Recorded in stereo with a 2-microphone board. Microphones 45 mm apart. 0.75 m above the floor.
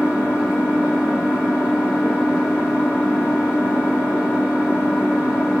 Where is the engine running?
55° left (ahead or behind), 5.5 m.